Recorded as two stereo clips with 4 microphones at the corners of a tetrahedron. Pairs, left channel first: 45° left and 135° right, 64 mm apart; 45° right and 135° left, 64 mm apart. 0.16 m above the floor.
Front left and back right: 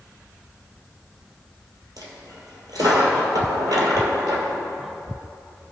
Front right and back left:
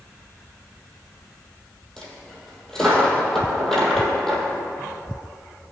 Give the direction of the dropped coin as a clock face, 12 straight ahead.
4 o'clock.